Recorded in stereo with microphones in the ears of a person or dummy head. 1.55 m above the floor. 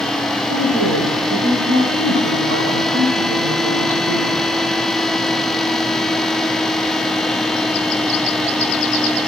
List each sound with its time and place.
0.5 s a woman speaking: 75° right (ahead or behind), 8.5 m